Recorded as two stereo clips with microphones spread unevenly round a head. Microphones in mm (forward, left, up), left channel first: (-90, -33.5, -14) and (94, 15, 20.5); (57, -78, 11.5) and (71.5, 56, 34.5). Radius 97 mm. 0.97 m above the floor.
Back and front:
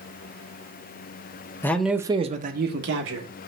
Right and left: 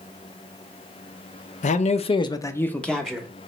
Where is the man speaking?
90° right, 0.5 m; by 3.3 s 5° right, 0.9 m.